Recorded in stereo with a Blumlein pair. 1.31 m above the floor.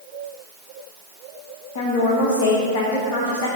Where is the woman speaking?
45° left, 0.9 m.